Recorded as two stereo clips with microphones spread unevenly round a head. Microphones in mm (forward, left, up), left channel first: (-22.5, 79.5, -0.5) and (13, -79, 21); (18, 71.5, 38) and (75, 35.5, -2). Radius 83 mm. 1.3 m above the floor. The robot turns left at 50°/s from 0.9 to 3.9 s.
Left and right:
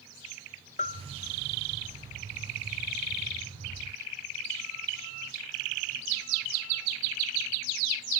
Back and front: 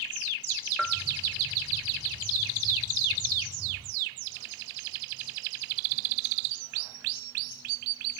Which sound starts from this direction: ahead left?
A bell, at 0.8 s.